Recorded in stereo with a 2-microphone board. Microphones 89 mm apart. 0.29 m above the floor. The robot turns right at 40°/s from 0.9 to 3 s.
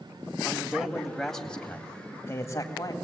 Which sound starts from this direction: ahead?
A man speaking, at 0.5 s.